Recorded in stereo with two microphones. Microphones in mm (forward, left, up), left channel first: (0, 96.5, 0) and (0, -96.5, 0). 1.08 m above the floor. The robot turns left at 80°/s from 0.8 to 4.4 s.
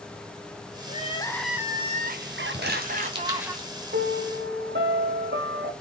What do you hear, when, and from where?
0.9 s crying: 45° left, 0.6 m; by 3.5 s 165° right, 0.6 m
2.5 s crumpling: 60° right (ahead or behind), 1.3 m; by 3.7 s 10° left (ahead or behind), 1.3 m
3.9 s a piano: 60° right, 1.3 m; by 5.7 s 100° right, 1.3 m